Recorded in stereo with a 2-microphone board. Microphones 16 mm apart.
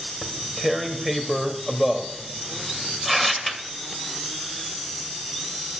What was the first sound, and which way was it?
Tearing paper, 5° right (ahead or behind).